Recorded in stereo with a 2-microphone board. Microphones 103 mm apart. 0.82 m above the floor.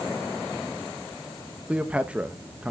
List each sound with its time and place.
1.7 s a man speaking: 10° right (ahead or behind), 0.7 m